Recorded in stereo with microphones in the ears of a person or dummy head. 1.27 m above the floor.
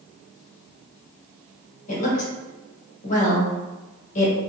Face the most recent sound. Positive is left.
turn(degrees=45)  # may be behind; listen again after turning